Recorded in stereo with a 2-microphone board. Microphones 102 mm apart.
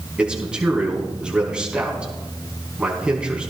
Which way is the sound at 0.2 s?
10° right (ahead or behind).